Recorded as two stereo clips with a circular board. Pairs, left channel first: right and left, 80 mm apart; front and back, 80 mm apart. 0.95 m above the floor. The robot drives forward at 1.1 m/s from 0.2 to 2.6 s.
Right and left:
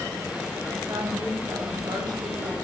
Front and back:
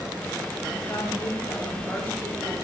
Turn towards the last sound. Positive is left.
turn(degrees=70)